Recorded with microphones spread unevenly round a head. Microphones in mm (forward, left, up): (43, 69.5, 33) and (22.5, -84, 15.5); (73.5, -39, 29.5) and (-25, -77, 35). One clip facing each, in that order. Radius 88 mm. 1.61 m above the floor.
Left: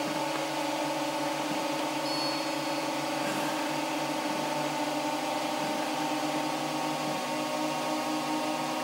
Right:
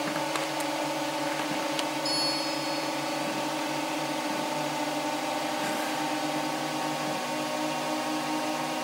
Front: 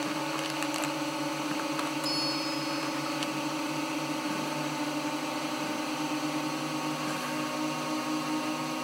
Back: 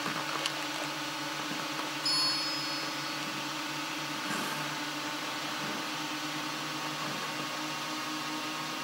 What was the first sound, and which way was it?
A drone, 10° right.